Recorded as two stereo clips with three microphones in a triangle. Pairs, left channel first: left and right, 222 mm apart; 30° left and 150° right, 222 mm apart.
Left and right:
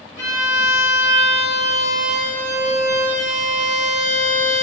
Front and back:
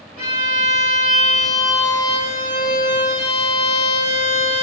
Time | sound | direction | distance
0.2 | a violin | 145° right | 1.0 m